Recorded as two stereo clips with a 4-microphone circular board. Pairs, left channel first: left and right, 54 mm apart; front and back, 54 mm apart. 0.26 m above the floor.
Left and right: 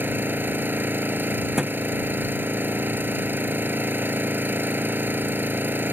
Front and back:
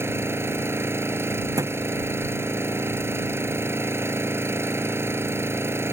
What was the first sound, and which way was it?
An engine running, 140° right.